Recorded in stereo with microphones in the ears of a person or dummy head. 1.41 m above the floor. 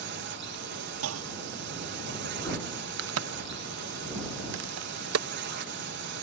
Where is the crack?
75° right (ahead or behind).